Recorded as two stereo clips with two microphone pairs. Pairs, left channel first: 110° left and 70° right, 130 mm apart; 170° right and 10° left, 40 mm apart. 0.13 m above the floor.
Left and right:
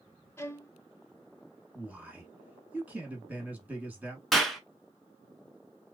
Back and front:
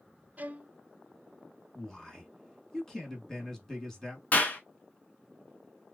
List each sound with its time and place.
0.4 s a violin: 45° left, 0.5 m
1.8 s a man speaking: 120° right, 1.2 m
4.3 s a clap: 160° right, 1.1 m